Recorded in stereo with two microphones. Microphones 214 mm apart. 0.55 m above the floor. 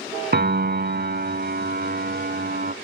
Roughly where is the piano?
Right.